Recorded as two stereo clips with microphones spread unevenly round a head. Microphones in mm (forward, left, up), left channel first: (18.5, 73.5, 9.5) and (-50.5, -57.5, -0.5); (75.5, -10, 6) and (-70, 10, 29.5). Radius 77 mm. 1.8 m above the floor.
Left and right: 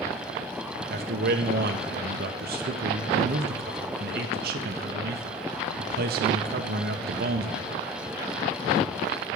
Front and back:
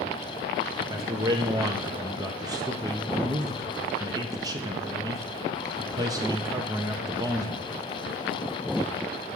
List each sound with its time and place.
0.9 s a man speaking: 130° right, 0.7 m